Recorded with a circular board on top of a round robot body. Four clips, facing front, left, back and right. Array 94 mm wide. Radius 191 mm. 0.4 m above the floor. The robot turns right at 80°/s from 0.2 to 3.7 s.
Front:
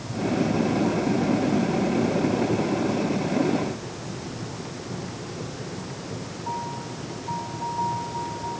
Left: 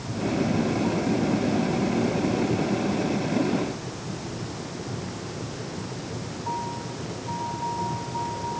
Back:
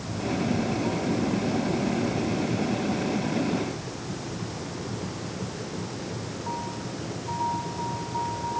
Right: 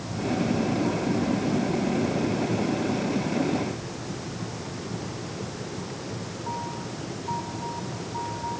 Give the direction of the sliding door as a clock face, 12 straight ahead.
I don't hear a sliding door.